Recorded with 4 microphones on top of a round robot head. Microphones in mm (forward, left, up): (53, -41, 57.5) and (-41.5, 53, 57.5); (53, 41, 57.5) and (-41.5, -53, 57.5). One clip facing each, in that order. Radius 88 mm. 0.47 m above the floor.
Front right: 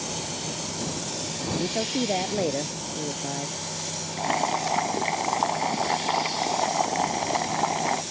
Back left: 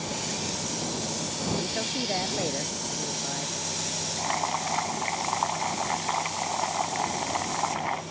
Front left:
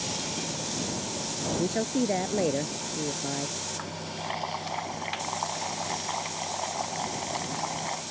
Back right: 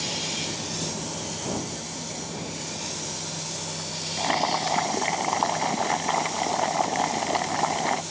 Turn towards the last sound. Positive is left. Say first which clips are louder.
# front right 4 dB, back right 10 dB
turn(degrees=-100)